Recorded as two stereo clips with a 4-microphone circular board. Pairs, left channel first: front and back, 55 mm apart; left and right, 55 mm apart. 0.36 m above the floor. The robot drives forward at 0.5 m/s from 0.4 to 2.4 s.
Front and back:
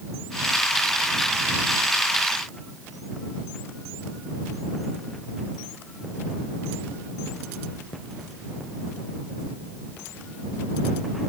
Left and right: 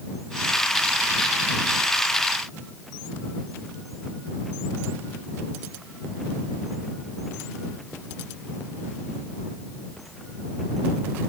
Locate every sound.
Only background noise.